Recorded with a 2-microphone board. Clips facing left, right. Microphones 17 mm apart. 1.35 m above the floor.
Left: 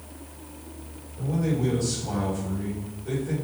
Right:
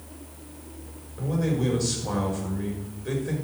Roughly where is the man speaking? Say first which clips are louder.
Even; right.